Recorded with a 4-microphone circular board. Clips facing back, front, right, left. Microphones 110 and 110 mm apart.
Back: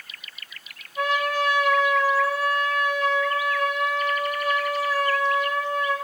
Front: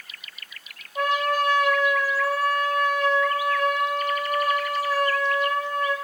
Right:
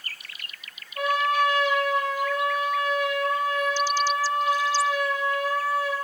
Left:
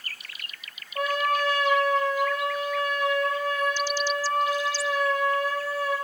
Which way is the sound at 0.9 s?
40° left.